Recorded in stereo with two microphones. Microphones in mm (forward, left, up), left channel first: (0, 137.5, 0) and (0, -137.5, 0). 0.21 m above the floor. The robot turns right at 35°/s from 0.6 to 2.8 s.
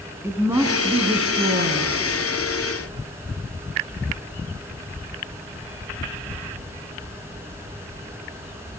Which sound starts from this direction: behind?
A woman speaking, at 0.2 s.